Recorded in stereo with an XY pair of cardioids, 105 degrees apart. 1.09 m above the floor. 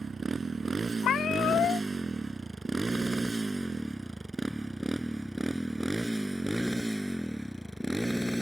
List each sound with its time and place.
0.0 s a motorcycle: 35° right; by 8.4 s straight ahead
1.0 s a cat meowing: 65° left